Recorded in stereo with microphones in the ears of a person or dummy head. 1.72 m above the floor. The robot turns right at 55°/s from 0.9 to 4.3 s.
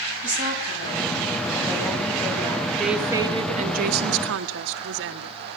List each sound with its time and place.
0.2 s a woman speaking: 65° right, 9 m; by 2.7 s 35° left, 9 m
2.8 s a woman speaking: straight behind, 1.2 m; by 5.3 s 95° right, 1.2 m